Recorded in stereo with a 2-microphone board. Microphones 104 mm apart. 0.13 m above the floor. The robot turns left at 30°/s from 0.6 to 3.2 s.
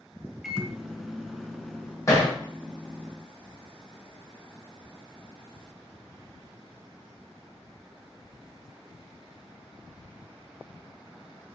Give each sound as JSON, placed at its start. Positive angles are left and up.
{"t": 0.4, "sound": "a microwave", "side_deg": -5, "distance_m": 0.8}
{"t": 2.1, "sound": "hammering", "side_deg": 35, "distance_m": 4.0}